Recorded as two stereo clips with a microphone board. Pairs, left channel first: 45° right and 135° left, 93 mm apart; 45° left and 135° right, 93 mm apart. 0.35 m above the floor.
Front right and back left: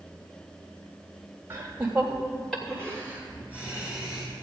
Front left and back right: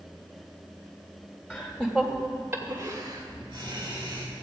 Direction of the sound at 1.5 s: 100° left.